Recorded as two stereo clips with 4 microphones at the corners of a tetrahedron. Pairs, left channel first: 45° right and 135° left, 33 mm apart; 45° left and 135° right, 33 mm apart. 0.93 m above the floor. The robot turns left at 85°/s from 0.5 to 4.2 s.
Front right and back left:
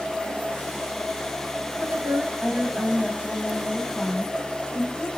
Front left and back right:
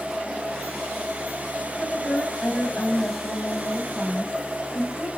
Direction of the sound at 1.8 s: 135° left.